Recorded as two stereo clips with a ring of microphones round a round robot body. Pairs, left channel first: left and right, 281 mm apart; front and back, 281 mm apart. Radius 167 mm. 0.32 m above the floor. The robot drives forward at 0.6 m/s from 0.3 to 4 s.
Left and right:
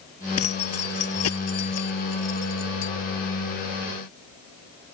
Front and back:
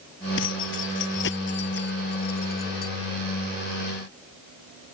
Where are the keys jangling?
50° left; by 2.9 s 65° left.